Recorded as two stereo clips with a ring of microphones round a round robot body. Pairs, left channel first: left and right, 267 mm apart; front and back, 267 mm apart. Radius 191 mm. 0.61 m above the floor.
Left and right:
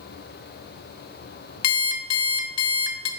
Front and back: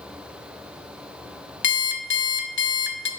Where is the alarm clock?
55° left, 0.6 m.